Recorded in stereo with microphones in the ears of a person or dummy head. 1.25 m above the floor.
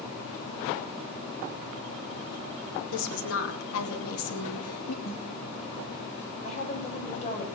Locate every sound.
2.9 s a woman speaking: 70° left (ahead or behind), 3 m; by 5.0 s 80° left, 2.5 m
5.0 s a snare drum: 75° left (ahead or behind), 9.5 m
6.4 s a woman speaking: 35° left (ahead or behind), 6 m